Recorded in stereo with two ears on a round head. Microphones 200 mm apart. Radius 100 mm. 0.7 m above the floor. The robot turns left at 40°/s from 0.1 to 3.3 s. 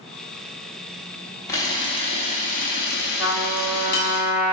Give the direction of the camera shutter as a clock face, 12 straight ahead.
7 o'clock.